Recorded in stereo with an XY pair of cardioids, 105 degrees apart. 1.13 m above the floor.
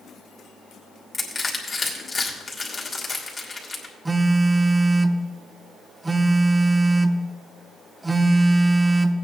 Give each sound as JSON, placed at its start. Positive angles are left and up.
{"t": 1.1, "sound": "crushing", "azimuth_deg": 25, "distance_m": 3.0}
{"t": 4.0, "sound": "a phone buzzing", "azimuth_deg": -15, "distance_m": 0.8}